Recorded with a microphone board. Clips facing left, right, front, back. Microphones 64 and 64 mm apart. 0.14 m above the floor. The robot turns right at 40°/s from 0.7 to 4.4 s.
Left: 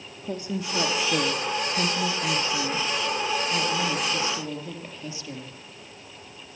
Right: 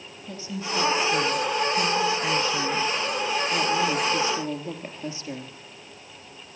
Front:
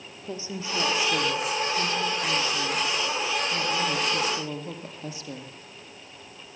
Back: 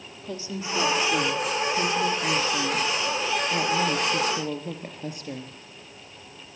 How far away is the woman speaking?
About 3 m.